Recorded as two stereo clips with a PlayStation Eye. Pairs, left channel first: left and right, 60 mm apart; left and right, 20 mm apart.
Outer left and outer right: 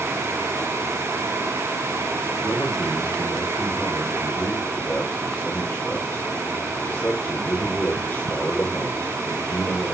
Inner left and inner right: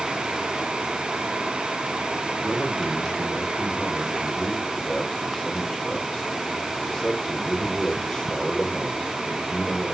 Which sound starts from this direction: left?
A man speaking, at 2.4 s.